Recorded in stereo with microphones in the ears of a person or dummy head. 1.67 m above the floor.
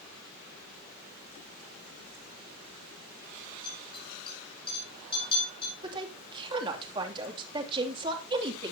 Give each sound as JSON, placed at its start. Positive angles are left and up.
{"t": 3.6, "sound": "a clink", "side_deg": 30, "distance_m": 8.0}
{"t": 5.8, "sound": "a woman speaking", "side_deg": -30, "distance_m": 2.5}